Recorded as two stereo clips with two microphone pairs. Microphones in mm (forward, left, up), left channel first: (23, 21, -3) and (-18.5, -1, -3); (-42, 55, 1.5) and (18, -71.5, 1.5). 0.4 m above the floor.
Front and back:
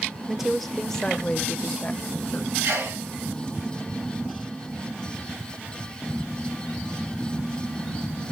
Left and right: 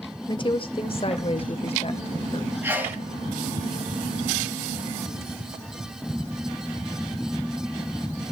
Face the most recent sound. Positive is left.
turn(degrees=-140)